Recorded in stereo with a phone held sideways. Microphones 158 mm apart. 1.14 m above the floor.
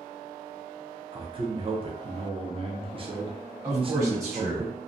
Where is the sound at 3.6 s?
20° right (ahead or behind), 1.4 m.